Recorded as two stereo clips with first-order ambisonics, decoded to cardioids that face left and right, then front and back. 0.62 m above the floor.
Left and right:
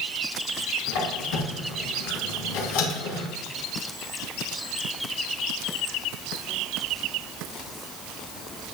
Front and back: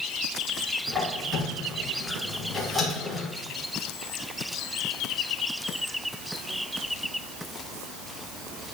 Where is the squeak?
90° left, 2.5 m.